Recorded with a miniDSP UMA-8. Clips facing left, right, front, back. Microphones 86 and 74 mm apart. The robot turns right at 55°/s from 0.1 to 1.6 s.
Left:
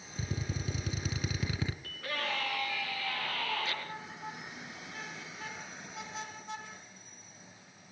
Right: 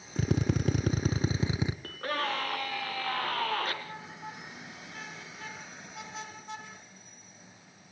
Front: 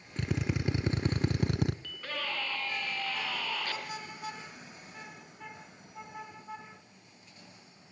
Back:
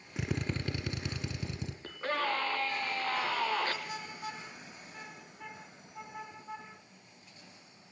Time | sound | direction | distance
0.2 | a drill | 100° right | 1.1 m
1.8 | a scream | 125° right | 3 m